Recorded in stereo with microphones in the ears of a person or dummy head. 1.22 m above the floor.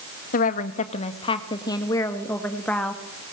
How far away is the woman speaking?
About 1.6 m.